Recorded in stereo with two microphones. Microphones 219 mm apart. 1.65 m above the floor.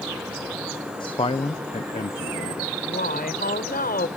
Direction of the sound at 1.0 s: 20° left (ahead or behind).